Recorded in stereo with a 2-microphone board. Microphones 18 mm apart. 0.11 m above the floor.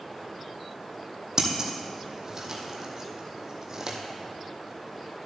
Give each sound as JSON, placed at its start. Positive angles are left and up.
{"t": 1.4, "sound": "scissors", "side_deg": -35, "distance_m": 1.4}